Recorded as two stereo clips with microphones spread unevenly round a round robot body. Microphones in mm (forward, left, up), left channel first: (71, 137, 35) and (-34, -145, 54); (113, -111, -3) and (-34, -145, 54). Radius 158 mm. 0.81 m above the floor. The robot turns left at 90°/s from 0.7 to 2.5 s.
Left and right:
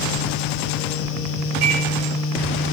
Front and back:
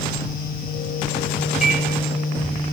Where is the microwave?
80° right, 3 m; by 1.8 s 100° right, 3 m.